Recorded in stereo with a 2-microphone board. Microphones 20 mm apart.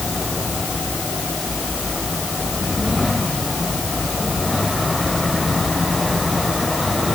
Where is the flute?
I don't hear a flute.